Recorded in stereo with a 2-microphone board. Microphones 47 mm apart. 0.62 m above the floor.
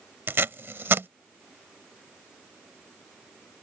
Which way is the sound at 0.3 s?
55° right (ahead or behind).